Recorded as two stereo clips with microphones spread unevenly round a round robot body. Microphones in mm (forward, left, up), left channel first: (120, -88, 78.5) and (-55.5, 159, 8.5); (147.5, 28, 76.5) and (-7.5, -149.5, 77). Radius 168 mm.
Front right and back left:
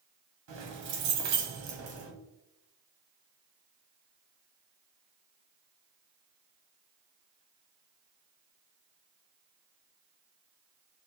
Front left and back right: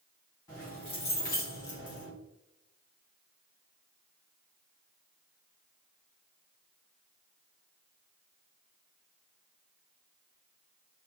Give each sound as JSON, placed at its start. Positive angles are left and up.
{"t": 0.5, "sound": "keys jangling", "azimuth_deg": 125, "distance_m": 1.5}